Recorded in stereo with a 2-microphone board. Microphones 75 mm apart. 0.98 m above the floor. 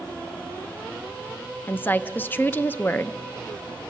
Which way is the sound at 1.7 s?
25° left (ahead or behind).